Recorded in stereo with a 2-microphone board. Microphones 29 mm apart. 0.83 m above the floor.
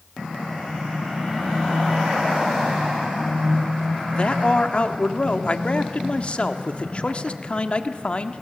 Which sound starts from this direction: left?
A man speaking, at 4.1 s.